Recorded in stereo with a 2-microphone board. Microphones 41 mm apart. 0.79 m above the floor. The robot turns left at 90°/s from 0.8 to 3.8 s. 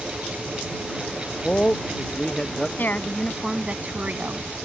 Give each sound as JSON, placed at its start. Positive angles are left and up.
{"t": 0.0, "sound": "a helicopter", "side_deg": 35}
{"t": 1.3, "sound": "a man speaking", "side_deg": 15}
{"t": 2.8, "sound": "a woman speaking", "azimuth_deg": 55}